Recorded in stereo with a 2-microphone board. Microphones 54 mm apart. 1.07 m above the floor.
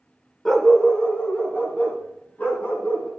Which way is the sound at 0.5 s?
5° left (ahead or behind).